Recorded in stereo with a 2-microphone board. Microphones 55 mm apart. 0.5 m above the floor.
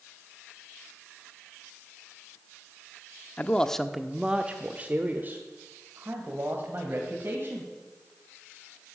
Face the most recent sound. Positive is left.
turn(degrees=-45)  # may be behind; listen again after turning